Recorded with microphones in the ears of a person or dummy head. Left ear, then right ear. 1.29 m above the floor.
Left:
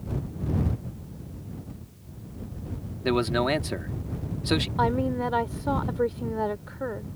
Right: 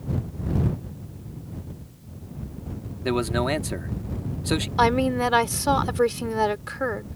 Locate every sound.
3.0 s a man speaking: 5° left (ahead or behind)
4.8 s a woman speaking: 70° right (ahead or behind)